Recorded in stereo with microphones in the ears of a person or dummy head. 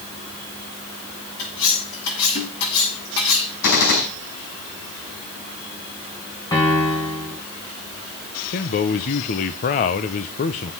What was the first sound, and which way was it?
Cutlery clinking, 80° left.